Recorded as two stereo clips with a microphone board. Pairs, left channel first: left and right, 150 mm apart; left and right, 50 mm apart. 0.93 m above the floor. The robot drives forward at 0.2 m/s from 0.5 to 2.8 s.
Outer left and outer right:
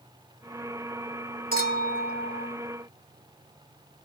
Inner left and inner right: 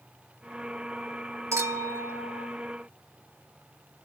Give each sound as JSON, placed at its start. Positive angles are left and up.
{"t": 1.5, "sound": "a clink", "side_deg": -75, "distance_m": 2.0}